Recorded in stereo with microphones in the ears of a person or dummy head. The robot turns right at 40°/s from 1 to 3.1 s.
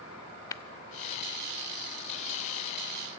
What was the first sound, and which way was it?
Tapping, 25° left (ahead or behind).